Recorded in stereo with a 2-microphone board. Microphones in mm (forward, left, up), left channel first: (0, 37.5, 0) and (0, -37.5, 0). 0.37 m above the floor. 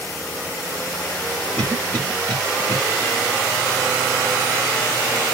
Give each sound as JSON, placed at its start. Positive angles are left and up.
{"t": 1.6, "sound": "a cough", "side_deg": 25, "distance_m": 1.4}